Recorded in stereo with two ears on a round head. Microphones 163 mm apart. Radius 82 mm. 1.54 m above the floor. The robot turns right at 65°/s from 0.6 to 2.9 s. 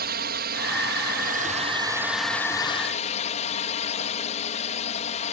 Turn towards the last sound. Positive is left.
turn(degrees=45)